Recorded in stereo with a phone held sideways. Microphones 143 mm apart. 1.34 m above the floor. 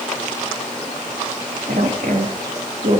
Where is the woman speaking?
80° right, 3.5 m.